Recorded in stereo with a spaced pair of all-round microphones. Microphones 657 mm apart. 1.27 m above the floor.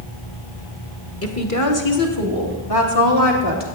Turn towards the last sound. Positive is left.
turn(degrees=40)  # may be behind; listen again after turning